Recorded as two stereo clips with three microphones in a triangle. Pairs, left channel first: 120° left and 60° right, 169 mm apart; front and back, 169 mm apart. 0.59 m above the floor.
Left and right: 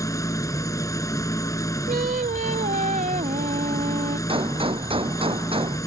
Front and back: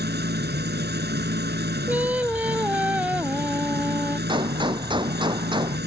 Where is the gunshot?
120° right.